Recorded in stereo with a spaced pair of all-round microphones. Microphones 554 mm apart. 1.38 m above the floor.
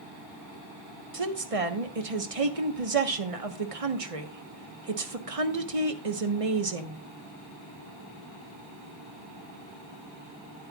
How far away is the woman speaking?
About 1.3 m.